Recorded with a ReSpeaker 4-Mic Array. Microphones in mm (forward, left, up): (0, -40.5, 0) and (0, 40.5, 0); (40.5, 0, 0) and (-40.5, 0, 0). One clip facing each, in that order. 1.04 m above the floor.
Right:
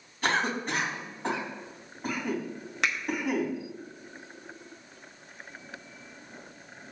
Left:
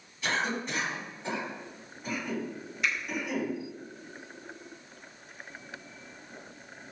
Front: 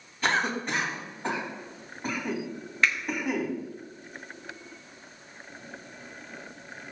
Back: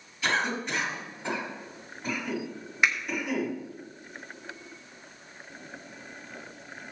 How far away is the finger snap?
About 1.2 m.